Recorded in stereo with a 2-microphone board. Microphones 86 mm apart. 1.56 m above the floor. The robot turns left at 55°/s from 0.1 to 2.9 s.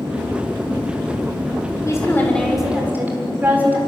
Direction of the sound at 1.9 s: 35° left.